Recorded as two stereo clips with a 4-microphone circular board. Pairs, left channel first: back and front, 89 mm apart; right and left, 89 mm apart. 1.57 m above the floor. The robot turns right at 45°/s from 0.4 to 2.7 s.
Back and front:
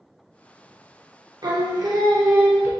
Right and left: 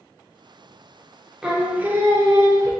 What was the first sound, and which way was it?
Singing, 5° left.